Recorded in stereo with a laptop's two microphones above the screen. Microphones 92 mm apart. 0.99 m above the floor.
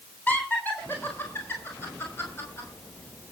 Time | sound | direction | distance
0.3 | laughter | 20° left (ahead or behind) | 3.5 m